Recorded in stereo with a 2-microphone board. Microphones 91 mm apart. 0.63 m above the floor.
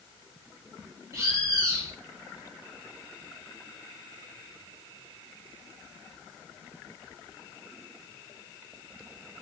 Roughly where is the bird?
Right.